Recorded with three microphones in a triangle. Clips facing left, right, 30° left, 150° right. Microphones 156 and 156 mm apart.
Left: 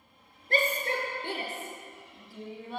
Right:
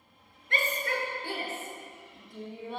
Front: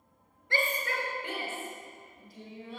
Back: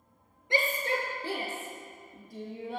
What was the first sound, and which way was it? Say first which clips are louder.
A shout: left 3 dB, back 3 dB; 140° left.